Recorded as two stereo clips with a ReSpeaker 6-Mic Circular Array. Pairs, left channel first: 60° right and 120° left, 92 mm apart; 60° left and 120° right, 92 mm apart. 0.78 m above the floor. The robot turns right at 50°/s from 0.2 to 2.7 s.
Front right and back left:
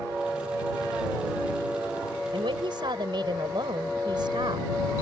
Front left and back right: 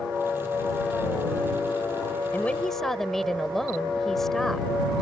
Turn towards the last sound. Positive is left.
turn(degrees=145)